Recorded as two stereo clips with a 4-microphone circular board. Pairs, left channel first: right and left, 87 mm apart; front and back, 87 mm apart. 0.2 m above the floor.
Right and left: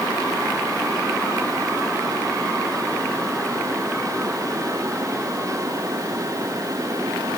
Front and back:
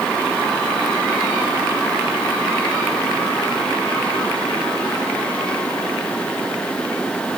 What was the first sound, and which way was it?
Only background noise.